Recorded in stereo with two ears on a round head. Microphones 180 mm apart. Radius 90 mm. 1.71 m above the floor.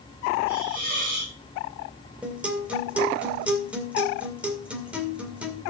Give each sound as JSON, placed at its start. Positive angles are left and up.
{"t": 0.5, "sound": "a hiss", "side_deg": -45, "distance_m": 8.0}
{"t": 2.2, "sound": "a guitar", "side_deg": -5, "distance_m": 2.0}